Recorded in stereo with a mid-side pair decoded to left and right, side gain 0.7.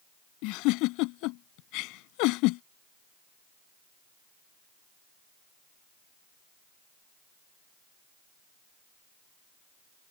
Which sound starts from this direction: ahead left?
A giggle, at 0.4 s.